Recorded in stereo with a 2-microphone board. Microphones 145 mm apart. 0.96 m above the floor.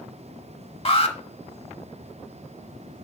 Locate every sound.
0.8 s an alarm: 40° left (ahead or behind), 1.0 m